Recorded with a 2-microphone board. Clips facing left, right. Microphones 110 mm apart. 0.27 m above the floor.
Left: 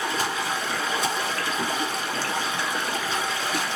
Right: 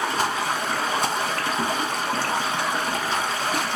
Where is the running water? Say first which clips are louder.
Right 3 dB; 55° right (ahead or behind), 0.7 m.